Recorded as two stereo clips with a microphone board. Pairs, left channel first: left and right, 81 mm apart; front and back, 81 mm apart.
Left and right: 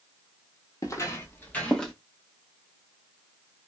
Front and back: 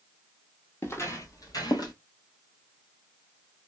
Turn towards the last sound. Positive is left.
turn(degrees=5)